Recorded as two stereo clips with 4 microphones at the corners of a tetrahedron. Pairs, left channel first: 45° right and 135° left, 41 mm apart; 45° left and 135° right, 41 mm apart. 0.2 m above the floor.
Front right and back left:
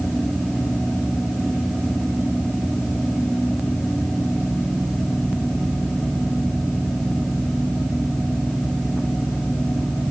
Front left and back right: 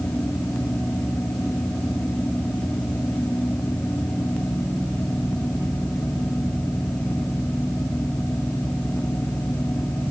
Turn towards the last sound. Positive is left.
No sound to turn to.